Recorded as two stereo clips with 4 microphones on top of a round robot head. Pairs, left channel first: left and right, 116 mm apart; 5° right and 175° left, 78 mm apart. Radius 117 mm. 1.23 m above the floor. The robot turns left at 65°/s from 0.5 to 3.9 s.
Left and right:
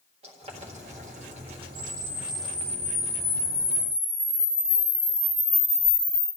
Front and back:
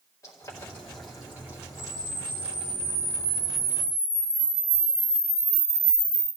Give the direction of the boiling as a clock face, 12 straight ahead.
2 o'clock.